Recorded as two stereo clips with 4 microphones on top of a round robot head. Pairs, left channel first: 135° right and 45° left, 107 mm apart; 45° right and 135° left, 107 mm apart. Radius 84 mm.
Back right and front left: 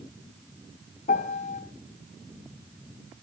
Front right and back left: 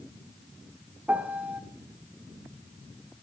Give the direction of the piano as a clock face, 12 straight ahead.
5 o'clock.